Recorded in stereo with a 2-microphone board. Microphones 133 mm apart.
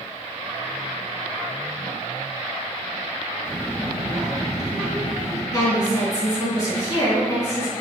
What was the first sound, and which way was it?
A child speaking, 35° right (ahead or behind).